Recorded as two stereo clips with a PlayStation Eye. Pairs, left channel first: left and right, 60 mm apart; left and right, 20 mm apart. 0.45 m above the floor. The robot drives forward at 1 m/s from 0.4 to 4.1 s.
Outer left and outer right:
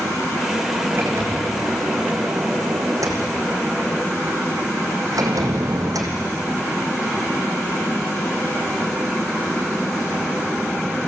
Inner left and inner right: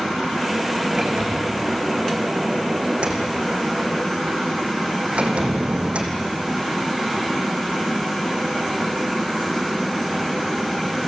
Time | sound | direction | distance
0.9 | a sliding door | 45° right (ahead or behind) | 5 m